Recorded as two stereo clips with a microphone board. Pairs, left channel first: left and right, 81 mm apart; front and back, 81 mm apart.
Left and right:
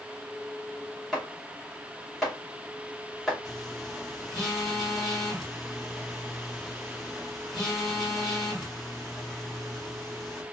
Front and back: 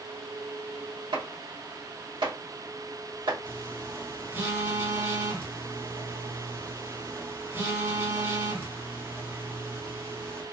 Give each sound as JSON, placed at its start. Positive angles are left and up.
{"t": 1.1, "sound": "chopping", "azimuth_deg": 180, "distance_m": 2.0}
{"t": 3.5, "sound": "a phone buzzing", "azimuth_deg": 175, "distance_m": 1.4}